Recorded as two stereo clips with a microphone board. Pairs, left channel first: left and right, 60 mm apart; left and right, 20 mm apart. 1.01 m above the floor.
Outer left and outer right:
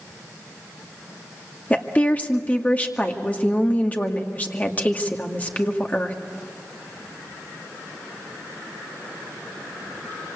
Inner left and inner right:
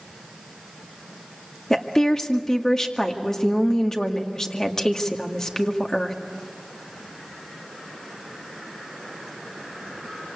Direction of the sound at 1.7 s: 25° left (ahead or behind).